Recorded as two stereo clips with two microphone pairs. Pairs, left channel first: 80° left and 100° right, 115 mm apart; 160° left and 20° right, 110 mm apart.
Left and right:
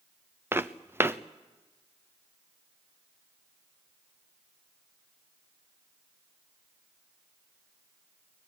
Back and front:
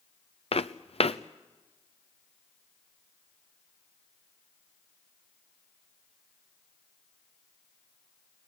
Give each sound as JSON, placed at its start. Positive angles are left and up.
{"t": 0.5, "sound": "footsteps", "azimuth_deg": -175, "distance_m": 0.9}